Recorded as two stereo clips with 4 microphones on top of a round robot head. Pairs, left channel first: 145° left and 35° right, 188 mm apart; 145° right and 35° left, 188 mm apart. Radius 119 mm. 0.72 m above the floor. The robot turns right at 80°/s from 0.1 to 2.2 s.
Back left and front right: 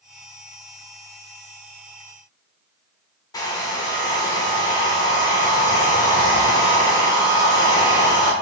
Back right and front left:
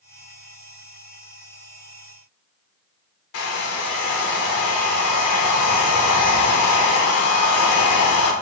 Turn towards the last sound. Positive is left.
turn(degrees=-145)